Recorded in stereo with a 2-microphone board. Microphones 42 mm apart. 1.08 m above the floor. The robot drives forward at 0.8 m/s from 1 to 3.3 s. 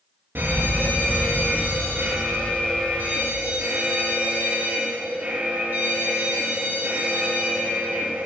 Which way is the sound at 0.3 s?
65° right (ahead or behind).